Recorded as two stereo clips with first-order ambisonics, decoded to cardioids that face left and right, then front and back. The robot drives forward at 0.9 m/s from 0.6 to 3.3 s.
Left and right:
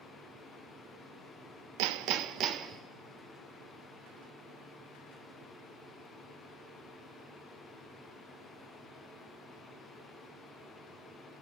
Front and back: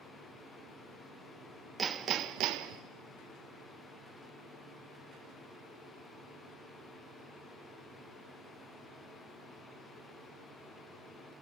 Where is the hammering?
110° right, 0.8 m; by 2.8 s 150° right, 1.4 m.